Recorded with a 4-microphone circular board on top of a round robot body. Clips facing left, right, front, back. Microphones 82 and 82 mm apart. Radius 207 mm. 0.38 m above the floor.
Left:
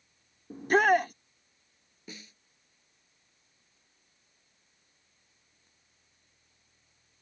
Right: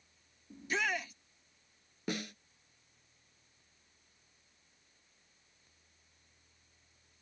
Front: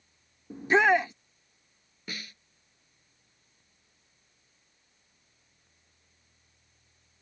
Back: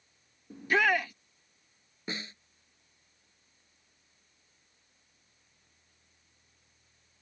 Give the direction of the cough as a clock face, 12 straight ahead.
No cough in this recording.